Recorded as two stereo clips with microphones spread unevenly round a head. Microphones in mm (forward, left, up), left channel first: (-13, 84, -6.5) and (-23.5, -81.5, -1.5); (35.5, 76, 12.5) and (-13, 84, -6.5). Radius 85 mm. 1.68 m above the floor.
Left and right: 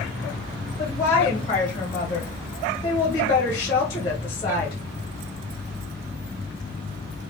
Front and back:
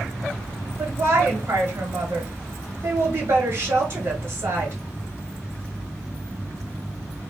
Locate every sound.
0.8 s a woman speaking: 150° left, 1.1 m